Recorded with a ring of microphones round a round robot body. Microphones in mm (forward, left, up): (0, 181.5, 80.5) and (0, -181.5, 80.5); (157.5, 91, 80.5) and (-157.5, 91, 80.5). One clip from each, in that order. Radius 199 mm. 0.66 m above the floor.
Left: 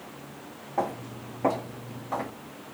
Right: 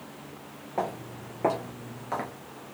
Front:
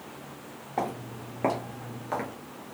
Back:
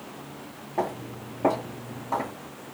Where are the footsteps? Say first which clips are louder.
Left 2 dB, back 2 dB; 10° right, 1.3 m; by 2.3 s 35° right, 0.7 m.